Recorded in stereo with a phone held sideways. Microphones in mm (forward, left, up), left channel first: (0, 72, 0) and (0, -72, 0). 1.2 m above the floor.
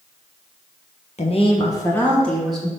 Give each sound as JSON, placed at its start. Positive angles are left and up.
{"t": 1.2, "sound": "a woman speaking", "side_deg": 50, "distance_m": 1.1}